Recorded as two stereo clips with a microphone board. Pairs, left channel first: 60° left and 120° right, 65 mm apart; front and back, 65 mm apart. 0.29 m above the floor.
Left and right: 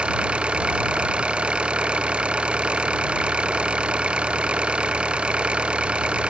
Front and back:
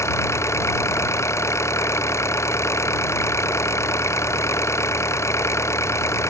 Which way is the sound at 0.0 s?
45° right.